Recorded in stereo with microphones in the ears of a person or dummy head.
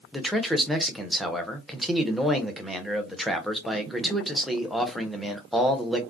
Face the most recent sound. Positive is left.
turn(degrees=-5)  # may be behind; listen again after turning